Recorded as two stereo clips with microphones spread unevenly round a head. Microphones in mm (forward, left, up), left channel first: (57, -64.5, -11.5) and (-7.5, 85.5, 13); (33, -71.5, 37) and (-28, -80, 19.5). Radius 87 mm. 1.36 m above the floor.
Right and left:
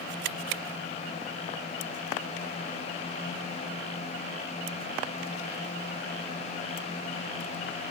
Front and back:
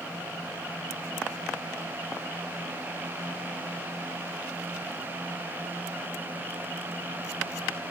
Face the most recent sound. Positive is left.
No sound to turn to.